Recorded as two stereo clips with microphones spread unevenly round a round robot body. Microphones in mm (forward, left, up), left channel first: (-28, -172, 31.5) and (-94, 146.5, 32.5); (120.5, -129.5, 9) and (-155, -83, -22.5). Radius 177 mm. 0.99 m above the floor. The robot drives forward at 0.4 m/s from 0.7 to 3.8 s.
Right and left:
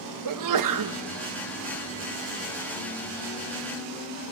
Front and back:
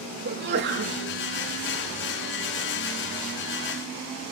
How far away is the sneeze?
About 1.3 m.